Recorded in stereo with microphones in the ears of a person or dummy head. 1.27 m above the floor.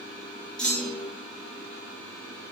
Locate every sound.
0.6 s a clunk: 5° left (ahead or behind), 0.5 m